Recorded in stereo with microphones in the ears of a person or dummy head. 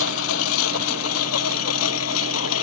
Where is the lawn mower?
80° left.